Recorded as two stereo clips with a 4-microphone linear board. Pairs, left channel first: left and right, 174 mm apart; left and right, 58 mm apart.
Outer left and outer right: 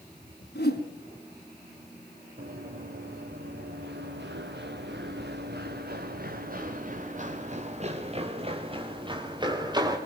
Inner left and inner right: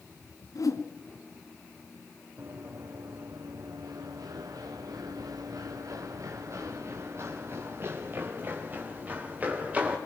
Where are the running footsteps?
60° right (ahead or behind), 4 m; by 10.0 s 25° right (ahead or behind), 5.5 m.